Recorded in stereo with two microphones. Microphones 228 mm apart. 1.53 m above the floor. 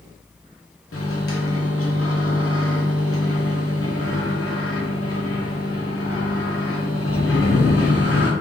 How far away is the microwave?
About 0.8 m.